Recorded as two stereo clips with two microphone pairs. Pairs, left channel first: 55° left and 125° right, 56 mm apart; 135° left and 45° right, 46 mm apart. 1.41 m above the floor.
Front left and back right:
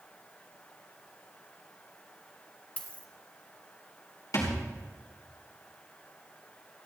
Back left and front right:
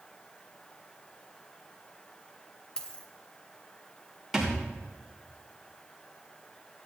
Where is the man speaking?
No man speaking in this recording.